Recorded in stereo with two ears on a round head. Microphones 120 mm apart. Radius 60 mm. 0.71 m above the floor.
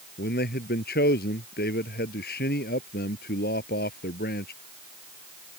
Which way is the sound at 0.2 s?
85° left.